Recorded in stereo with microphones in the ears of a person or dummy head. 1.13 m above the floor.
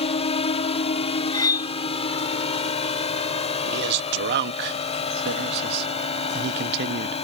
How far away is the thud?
No thud in this recording.